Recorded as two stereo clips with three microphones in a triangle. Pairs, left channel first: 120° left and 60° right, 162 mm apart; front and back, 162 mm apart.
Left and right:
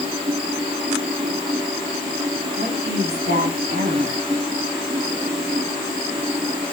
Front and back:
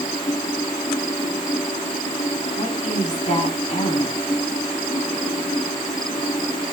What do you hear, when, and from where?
2.5 s a woman speaking: 45° right, 2.5 m